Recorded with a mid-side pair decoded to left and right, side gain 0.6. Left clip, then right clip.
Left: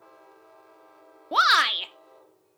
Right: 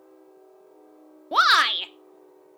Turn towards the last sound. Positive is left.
turn(degrees=-5)